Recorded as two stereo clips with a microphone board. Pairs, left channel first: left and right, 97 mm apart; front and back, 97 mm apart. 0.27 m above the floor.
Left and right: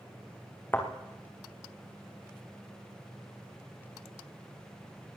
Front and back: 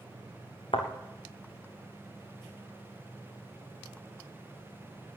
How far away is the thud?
About 3.5 m.